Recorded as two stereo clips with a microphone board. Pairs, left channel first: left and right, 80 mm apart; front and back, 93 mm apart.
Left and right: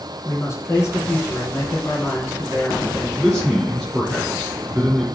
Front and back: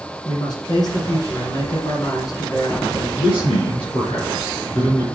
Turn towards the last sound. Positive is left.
turn(degrees=5)